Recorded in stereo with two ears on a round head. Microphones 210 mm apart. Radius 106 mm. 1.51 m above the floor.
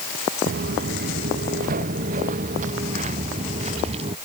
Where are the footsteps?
45° right (ahead or behind); by 4.2 s 25° right (ahead or behind).